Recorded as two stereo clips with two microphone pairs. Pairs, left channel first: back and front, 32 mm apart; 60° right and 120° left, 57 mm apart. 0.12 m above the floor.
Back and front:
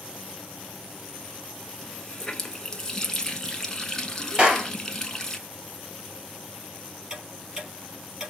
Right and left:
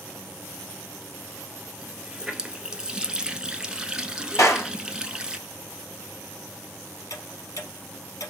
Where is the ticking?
70° right, 3.5 m.